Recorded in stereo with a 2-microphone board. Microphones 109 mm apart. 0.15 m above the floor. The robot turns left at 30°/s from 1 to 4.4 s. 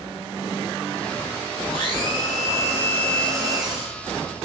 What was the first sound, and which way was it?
A blender, 50° left.